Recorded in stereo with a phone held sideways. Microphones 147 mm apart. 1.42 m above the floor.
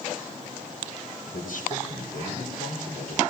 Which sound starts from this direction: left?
A man speaking, at 1.3 s.